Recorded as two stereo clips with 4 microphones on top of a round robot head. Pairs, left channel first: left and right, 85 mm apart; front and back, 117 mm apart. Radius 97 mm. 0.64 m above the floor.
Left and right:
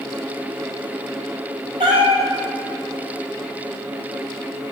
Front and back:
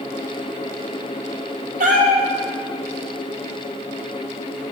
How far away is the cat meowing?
About 1.5 m.